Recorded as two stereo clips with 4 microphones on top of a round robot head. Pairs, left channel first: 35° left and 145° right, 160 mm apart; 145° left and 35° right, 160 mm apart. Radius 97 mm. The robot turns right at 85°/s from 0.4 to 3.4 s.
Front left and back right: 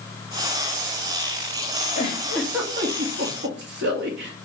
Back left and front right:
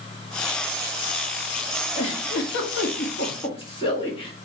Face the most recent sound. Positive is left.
turn(degrees=-155)